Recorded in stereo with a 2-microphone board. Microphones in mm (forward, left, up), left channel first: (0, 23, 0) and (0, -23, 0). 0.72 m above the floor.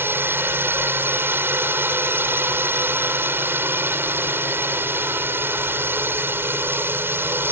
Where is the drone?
50° right (ahead or behind).